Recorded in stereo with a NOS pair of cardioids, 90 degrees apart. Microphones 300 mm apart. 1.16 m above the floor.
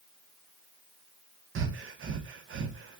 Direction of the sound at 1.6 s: 45° right.